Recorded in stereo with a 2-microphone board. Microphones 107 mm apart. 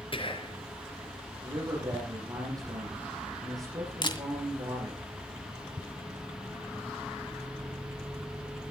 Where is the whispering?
55° left (ahead or behind), 4 m.